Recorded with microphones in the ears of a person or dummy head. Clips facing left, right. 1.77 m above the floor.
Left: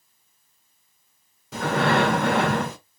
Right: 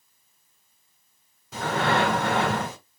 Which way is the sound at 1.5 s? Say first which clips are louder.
Left 3 dB; 55° left (ahead or behind).